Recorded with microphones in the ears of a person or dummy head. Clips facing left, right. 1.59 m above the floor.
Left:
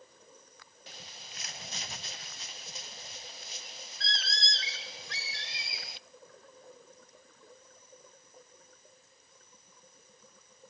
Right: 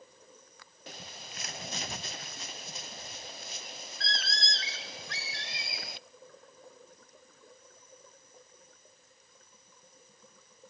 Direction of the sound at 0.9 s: 50° right (ahead or behind).